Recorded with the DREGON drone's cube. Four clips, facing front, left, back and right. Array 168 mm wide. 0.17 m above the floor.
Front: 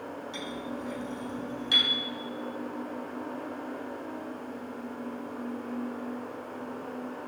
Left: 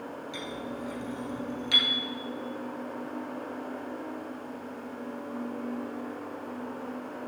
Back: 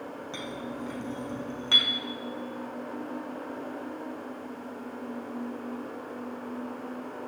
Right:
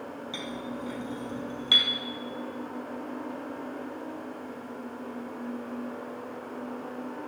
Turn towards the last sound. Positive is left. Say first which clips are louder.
# right 1 dB, back 1 dB
turn(degrees=-165)